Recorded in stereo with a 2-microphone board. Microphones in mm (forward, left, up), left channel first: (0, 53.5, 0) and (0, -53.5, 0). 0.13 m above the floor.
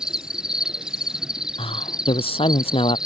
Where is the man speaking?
60° left (ahead or behind).